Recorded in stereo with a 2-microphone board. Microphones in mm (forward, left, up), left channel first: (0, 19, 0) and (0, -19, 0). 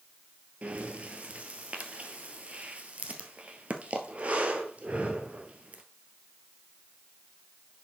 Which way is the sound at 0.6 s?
35° right (ahead or behind).